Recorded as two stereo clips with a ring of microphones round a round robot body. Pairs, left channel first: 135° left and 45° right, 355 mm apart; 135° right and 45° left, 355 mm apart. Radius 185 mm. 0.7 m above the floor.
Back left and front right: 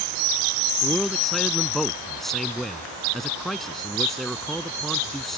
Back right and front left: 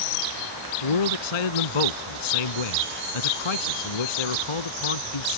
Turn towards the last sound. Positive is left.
turn(degrees=-135)